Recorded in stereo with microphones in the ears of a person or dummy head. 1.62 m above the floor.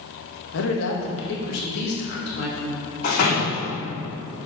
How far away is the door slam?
About 3 m.